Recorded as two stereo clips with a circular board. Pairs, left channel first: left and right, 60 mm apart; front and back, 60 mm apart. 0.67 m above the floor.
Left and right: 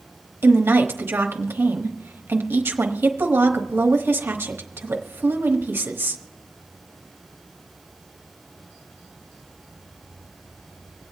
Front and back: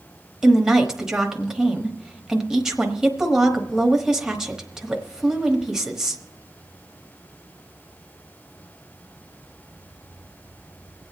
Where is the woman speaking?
105° right, 1.1 m.